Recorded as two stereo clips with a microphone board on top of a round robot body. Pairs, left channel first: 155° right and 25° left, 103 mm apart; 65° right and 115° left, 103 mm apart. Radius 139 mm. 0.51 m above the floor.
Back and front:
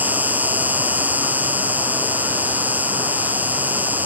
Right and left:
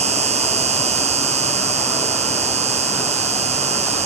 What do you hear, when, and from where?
0.0 s an insect: 100° left